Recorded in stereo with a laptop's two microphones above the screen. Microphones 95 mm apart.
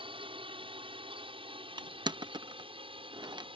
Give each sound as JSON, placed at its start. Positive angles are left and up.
{"t": 0.0, "sound": "a drone", "side_deg": -65}
{"t": 1.8, "sound": "crushing", "side_deg": -50}